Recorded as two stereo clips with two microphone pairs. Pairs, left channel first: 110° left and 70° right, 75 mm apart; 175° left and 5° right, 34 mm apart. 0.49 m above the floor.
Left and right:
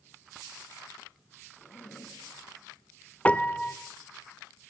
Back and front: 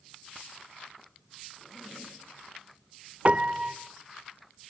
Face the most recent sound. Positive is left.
turn(degrees=40)